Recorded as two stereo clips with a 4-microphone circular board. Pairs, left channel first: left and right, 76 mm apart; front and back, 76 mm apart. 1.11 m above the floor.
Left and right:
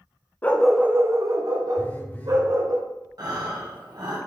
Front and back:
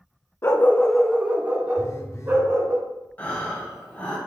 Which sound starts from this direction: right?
Breathing, at 3.2 s.